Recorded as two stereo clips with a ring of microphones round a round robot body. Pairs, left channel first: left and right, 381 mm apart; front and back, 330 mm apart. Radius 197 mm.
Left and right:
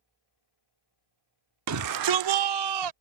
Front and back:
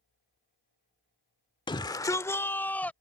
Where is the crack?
No crack in this recording.